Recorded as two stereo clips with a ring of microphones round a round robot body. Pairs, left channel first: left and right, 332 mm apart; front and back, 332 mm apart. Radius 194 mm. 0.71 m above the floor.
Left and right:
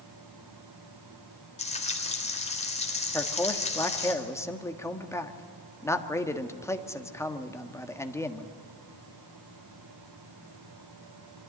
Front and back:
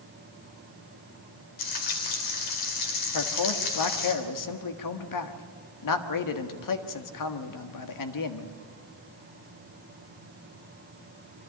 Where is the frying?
20° left, 3.5 m.